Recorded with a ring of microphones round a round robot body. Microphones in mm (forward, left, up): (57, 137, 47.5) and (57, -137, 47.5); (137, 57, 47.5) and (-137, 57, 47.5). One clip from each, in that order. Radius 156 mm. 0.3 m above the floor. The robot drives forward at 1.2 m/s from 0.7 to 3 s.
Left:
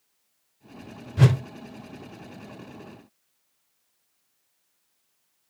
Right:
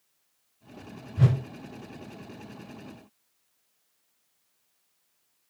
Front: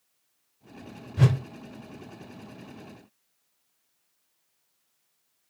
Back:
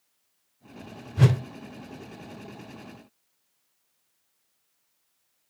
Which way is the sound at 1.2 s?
90° left.